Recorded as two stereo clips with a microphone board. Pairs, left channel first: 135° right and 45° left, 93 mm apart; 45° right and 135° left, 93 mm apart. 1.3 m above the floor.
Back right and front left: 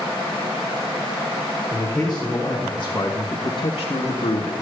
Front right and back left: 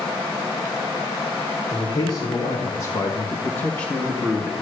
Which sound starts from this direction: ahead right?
A man speaking, at 1.7 s.